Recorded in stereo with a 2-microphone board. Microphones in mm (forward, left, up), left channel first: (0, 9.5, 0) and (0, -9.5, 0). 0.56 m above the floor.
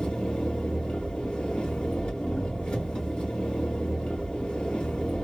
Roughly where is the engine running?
Left.